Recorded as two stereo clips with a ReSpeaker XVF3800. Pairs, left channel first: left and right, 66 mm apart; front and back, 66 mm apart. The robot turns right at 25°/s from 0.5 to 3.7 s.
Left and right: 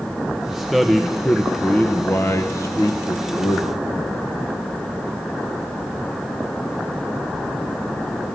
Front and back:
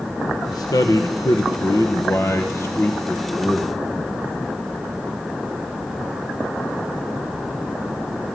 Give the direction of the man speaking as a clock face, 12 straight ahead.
12 o'clock.